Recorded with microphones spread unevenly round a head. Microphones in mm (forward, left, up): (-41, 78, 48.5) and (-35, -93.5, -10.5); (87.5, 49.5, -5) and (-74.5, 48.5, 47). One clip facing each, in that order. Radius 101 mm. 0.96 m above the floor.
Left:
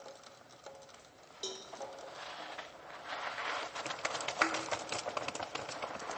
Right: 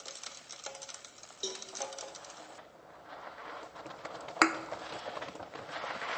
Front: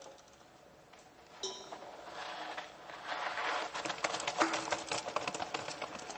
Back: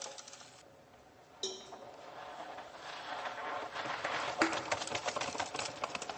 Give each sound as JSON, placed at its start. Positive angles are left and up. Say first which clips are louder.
{"t": 1.4, "sound": "a cowbell", "louder": "right 3 dB, back 1 dB", "azimuth_deg": -85, "distance_m": 1.0}
{"t": 4.4, "sound": "a thud", "louder": "right 7 dB, back 1 dB", "azimuth_deg": -120, "distance_m": 0.5}